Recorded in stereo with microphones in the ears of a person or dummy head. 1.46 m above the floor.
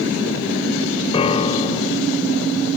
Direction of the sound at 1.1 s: 30° left (ahead or behind).